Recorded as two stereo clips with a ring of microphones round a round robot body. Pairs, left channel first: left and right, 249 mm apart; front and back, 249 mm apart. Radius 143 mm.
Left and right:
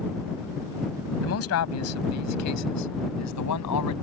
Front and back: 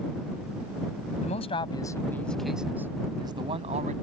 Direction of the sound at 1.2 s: 65° left.